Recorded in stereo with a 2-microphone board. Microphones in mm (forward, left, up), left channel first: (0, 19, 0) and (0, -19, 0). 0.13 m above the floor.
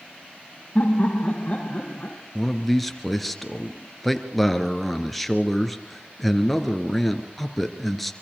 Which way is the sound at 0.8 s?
35° left (ahead or behind).